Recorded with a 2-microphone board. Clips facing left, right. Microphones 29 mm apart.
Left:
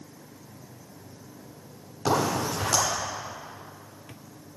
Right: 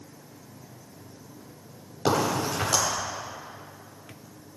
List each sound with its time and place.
2.0 s a crack: 35° right (ahead or behind), 4 m